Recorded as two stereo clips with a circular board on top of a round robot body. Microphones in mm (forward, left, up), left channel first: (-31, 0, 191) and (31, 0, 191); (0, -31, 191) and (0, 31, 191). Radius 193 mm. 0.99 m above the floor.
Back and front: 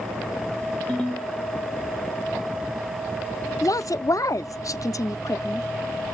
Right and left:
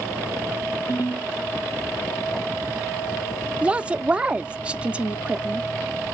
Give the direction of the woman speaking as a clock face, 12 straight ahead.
7 o'clock.